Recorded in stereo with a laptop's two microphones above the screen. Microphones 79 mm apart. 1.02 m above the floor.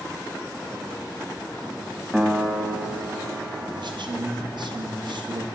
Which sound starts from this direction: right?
A man speaking, at 3.8 s.